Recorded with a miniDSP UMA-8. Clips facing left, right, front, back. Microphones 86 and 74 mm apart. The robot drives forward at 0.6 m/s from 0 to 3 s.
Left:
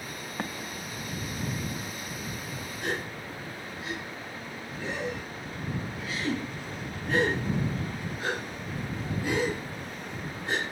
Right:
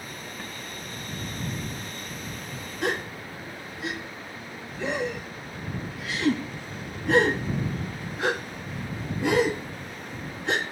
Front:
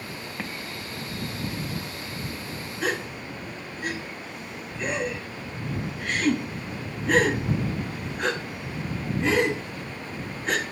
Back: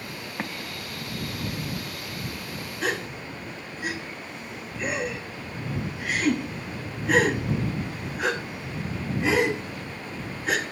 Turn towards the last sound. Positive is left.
turn(degrees=-95)